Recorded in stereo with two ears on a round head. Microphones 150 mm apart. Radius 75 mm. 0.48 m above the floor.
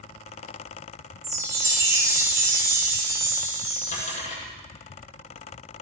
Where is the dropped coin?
50° left (ahead or behind), 8 m.